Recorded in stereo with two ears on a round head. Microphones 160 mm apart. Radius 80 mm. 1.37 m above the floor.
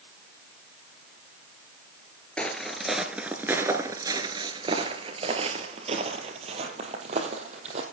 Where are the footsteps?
5° left (ahead or behind), 1.5 m; by 7.8 s 40° right (ahead or behind), 3 m.